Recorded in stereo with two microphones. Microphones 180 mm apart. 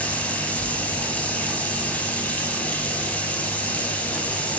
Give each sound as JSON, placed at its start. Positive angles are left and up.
{"t": 0.0, "sound": "running water", "side_deg": 10, "distance_m": 0.8}